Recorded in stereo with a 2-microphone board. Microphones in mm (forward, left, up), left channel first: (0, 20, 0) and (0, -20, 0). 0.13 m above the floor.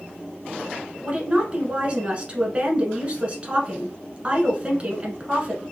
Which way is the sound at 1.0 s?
30° right (ahead or behind).